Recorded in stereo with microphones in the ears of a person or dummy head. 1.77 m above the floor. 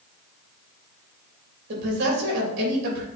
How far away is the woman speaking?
About 3 m.